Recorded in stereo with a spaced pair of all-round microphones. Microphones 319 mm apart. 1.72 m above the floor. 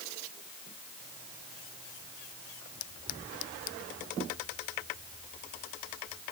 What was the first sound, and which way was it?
Only background noise.